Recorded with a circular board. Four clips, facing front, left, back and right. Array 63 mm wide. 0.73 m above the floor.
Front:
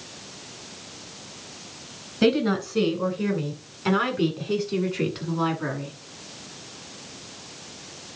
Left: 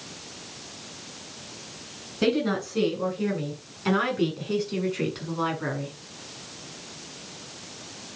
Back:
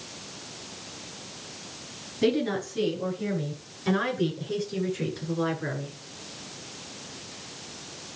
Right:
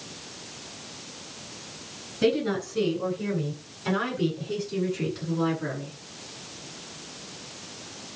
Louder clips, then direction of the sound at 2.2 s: Even, front 4 dB; 20° left.